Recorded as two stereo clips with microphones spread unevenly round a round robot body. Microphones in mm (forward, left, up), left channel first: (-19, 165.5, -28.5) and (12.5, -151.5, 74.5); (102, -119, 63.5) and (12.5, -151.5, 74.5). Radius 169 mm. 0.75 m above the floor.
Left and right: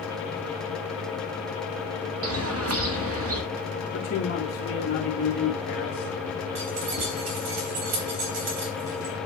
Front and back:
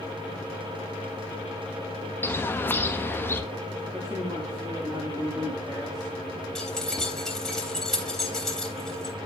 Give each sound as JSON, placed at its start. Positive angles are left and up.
{"t": 2.2, "sound": "a bird", "azimuth_deg": -30, "distance_m": 1.5}
{"t": 3.9, "sound": "a man speaking", "azimuth_deg": 140, "distance_m": 2.0}
{"t": 6.5, "sound": "keys jangling", "azimuth_deg": -65, "distance_m": 4.0}